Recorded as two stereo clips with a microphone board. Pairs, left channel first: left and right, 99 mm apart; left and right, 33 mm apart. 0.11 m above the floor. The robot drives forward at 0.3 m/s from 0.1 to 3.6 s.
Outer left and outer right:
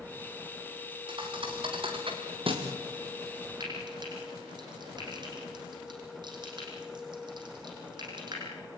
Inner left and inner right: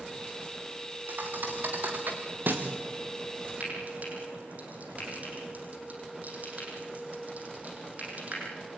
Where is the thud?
55° right (ahead or behind), 4 m; by 2.7 s 65° right (ahead or behind), 4 m.